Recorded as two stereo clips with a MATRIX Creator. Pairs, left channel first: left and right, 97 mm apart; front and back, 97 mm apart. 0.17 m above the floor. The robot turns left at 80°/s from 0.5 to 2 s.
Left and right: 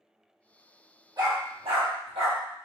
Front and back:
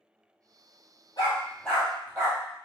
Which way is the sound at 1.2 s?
45° right.